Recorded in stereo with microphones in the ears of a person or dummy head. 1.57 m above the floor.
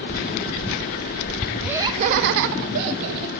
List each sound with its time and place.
1.6 s laughter: centre (ahead or behind), 0.5 m; by 3.3 s 65° right (ahead or behind), 1.1 m